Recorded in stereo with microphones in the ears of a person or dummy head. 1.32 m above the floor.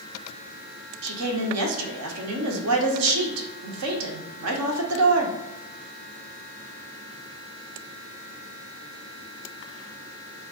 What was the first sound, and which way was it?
A woman speaking, 80° right.